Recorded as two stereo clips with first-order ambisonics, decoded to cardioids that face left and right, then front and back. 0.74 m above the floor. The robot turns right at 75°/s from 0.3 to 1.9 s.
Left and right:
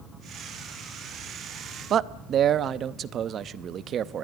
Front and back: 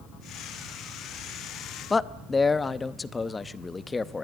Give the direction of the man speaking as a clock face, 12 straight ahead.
2 o'clock.